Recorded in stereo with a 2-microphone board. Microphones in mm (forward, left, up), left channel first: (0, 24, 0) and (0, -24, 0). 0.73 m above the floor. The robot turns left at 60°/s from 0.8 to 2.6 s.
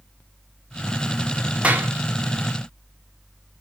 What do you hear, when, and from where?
1.6 s a clap: 25° right (ahead or behind), 1.8 m; by 1.9 s 40° right (ahead or behind), 1.8 m